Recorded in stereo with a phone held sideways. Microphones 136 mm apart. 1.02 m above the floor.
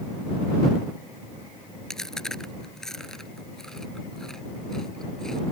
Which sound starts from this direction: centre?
Chewing, at 1.9 s.